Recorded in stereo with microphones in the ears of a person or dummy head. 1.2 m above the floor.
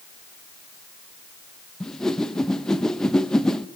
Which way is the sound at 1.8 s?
5° left (ahead or behind).